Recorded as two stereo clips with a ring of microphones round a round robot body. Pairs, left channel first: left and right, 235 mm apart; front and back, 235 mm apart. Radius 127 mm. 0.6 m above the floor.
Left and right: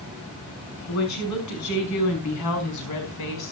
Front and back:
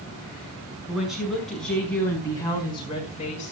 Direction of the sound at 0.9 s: 95° left.